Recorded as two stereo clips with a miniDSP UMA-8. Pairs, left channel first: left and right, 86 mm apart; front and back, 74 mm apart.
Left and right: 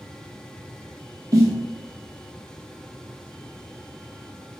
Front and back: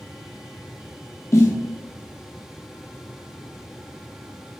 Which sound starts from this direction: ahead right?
A snare drum, at 1.3 s.